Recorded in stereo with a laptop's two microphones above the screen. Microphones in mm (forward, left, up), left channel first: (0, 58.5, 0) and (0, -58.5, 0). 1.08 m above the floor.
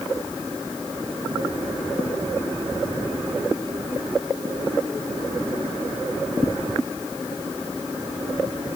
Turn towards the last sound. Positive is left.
No sound to turn to.